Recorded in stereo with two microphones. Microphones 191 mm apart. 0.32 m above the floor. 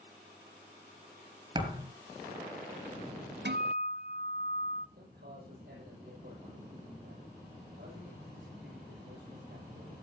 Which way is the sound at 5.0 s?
75° right (ahead or behind).